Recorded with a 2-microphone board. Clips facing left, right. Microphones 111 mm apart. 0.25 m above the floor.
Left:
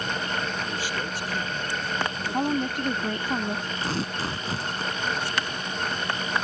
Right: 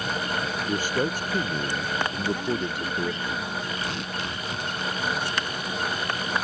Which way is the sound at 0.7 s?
45° right (ahead or behind).